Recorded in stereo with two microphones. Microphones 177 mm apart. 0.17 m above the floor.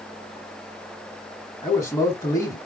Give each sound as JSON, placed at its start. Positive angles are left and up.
{"t": 1.6, "sound": "a man speaking", "side_deg": 15, "distance_m": 1.3}